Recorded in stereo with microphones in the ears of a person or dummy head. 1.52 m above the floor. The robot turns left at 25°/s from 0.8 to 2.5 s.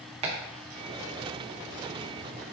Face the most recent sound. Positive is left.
turn(degrees=5)  # may be behind; listen again after turning